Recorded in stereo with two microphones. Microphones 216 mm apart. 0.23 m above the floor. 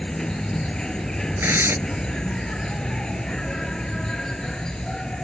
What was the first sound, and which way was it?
An insect, 5° left (ahead or behind).